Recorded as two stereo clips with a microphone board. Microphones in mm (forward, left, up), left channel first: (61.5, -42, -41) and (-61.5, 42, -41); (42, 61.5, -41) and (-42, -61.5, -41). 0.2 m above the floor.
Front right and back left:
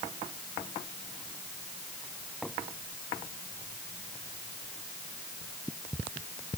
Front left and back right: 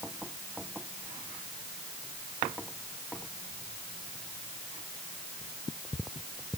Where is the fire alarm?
I don't hear a fire alarm.